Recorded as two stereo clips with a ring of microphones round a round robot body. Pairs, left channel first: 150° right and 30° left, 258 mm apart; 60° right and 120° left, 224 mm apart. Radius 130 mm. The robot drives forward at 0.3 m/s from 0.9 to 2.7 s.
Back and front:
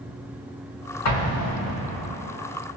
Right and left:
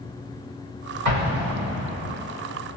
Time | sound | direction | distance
1.1 | an explosion | 175° left | 1.6 m